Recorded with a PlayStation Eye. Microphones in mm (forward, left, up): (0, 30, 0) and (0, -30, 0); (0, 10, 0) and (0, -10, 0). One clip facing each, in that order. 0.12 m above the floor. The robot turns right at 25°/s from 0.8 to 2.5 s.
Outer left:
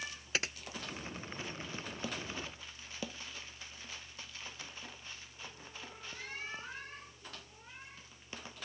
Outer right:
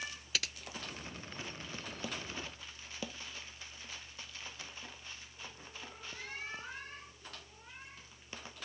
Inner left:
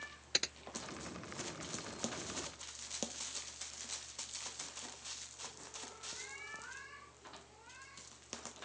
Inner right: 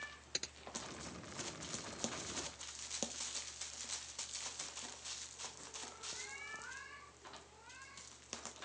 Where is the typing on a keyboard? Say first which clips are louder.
Outer left 3 dB, inner left 8 dB; 35° left (ahead or behind).